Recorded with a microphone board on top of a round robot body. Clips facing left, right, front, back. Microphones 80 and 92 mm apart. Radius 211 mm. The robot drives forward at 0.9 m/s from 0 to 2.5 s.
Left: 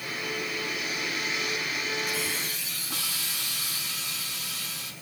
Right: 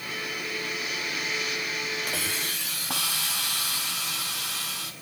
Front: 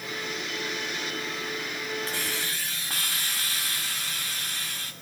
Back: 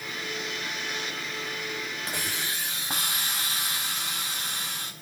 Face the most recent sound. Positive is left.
turn(degrees=-110)